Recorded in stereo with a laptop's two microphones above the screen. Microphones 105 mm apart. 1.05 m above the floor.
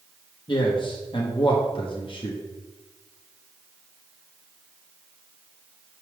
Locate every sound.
0.5 s a man speaking: 50° left (ahead or behind), 1.0 m